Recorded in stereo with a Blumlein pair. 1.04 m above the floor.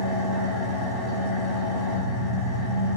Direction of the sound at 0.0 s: 15° left.